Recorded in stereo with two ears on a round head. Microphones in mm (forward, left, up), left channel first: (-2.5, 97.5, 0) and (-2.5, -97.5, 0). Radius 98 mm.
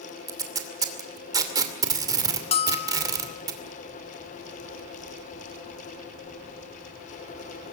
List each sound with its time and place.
0.3 s tape being pulled: 15° right (ahead or behind), 2.5 m
2.5 s a bell: 25° left (ahead or behind), 1.2 m